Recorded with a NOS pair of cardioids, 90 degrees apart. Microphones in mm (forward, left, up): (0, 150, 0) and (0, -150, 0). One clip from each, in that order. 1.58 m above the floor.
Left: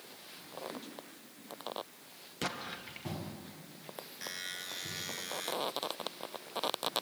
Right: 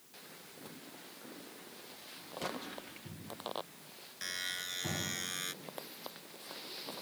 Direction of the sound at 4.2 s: 15° right.